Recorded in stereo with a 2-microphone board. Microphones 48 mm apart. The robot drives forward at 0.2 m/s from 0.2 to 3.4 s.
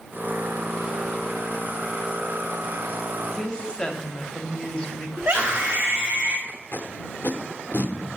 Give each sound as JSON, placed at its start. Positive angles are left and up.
{"t": 3.3, "sound": "a woman speaking", "side_deg": 20, "distance_m": 0.8}
{"t": 5.2, "sound": "a scream", "side_deg": -15, "distance_m": 1.3}
{"t": 6.5, "sound": "tape being pulled", "side_deg": 50, "distance_m": 0.7}